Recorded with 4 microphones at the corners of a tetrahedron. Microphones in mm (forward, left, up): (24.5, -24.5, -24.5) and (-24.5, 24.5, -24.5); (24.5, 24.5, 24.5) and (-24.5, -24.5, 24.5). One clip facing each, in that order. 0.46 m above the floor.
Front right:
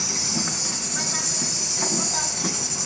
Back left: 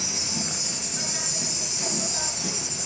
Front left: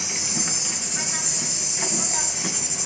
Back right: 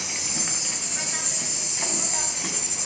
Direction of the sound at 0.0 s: 40° right.